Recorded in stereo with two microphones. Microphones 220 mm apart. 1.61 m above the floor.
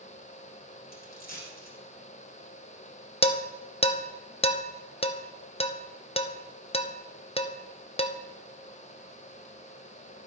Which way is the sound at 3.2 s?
25° left (ahead or behind).